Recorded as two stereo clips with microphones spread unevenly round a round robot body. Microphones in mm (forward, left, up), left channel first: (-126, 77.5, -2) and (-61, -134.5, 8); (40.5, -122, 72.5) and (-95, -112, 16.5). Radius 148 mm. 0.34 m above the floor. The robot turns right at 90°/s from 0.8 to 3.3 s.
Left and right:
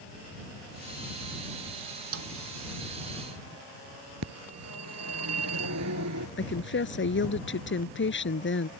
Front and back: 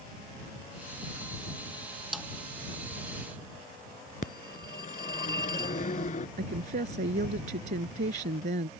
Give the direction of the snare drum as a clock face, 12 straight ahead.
3 o'clock.